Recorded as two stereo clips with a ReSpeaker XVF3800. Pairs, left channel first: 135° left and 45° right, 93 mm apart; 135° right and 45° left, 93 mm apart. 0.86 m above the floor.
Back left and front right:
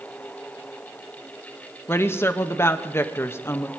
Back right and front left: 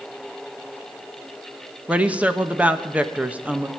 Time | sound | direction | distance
1.9 | a woman speaking | 105° left | 1.0 m